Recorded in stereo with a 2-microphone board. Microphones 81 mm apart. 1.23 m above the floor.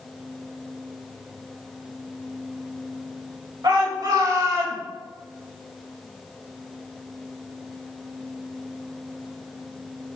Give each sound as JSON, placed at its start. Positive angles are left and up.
{"t": 3.6, "sound": "a shout", "side_deg": -55, "distance_m": 7.5}